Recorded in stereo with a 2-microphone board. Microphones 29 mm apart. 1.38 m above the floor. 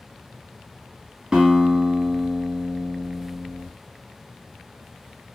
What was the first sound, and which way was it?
A guitar, 25° right (ahead or behind).